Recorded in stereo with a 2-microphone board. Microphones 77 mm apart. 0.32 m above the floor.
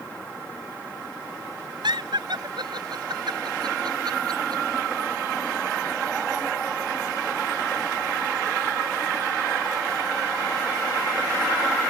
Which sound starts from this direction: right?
Laughter, at 1.8 s.